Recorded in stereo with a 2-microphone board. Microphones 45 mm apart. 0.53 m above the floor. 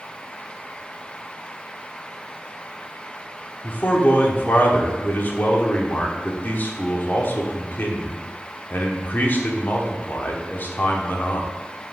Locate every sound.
3.6 s a man speaking: 45° left (ahead or behind), 1.1 m